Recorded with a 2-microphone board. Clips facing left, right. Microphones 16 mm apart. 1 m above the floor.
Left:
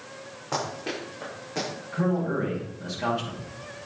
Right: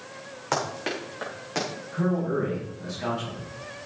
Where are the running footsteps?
60° right (ahead or behind), 5 m; by 1.7 s 45° right (ahead or behind), 5 m.